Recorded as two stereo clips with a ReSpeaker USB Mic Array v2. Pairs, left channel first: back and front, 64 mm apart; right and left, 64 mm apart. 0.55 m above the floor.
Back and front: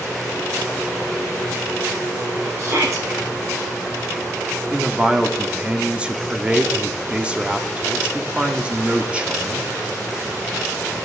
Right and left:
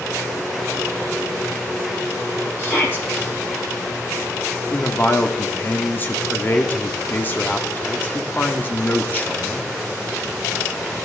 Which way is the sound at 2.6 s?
40° right.